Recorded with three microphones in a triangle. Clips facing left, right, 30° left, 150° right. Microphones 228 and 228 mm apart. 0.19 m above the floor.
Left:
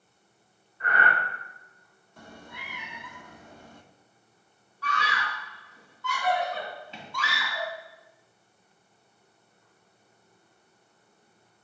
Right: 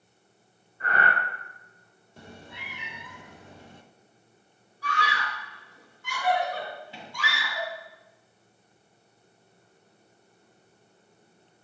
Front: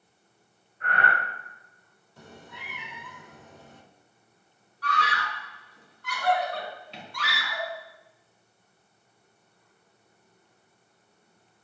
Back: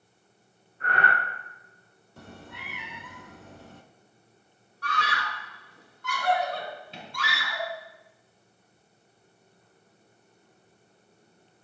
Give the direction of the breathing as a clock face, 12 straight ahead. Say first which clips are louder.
Even, even; 5 o'clock.